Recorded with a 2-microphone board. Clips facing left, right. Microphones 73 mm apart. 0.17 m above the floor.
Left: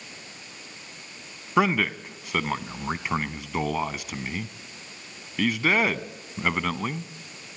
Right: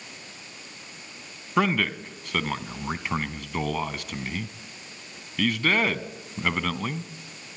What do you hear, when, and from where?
1.6 s a man speaking: 10° left (ahead or behind), 1.0 m